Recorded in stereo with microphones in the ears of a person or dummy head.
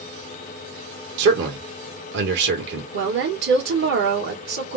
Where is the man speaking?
60° right (ahead or behind), 1.2 m.